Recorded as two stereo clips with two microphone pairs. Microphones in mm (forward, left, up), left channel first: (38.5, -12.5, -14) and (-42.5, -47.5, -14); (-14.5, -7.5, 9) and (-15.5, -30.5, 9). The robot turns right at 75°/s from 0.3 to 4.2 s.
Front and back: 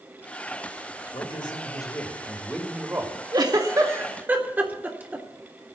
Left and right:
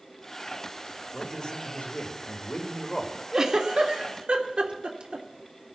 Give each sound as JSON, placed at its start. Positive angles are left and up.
{"t": 1.1, "sound": "a man speaking", "azimuth_deg": 10, "distance_m": 2.5}
{"t": 3.3, "sound": "a giggle", "azimuth_deg": -160, "distance_m": 1.8}